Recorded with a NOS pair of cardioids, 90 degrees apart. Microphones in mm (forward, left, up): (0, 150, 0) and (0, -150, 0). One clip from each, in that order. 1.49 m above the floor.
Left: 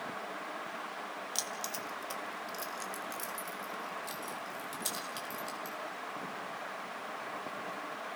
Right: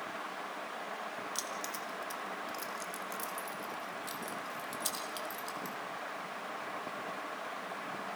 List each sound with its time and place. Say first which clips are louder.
1.4 s keys jangling: left 1 dB; 25° left, 1.8 m; by 5.8 s 5° right, 4.5 m